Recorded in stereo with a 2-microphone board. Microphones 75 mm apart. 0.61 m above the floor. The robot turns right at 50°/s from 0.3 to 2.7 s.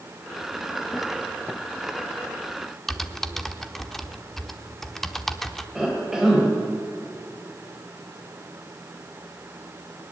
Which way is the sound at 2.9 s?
Centre (ahead or behind).